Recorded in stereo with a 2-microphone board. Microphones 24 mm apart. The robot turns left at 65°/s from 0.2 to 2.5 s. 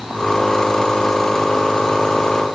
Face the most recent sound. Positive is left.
No sound to turn to.